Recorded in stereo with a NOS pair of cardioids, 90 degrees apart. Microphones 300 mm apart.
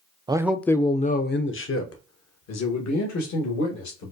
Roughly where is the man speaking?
Ahead.